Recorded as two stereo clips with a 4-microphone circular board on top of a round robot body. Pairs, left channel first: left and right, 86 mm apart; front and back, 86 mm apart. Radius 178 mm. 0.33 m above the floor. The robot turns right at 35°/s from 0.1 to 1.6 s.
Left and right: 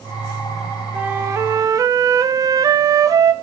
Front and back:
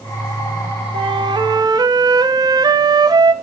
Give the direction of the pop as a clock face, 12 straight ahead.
No pop in this recording.